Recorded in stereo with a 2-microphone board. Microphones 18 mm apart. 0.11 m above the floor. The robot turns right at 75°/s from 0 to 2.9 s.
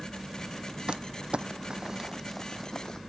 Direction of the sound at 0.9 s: 60° right (ahead or behind).